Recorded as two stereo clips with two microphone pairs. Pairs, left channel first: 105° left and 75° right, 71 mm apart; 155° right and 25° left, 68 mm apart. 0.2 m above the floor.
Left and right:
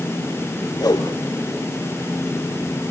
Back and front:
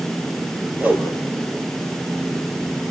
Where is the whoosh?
85° left, 3 m.